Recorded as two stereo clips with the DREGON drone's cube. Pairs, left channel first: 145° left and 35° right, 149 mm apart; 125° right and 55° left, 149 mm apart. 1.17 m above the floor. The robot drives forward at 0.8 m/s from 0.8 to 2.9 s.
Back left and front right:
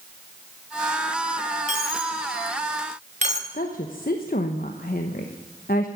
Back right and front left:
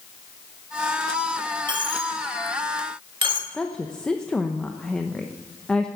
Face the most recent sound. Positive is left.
turn(degrees=155)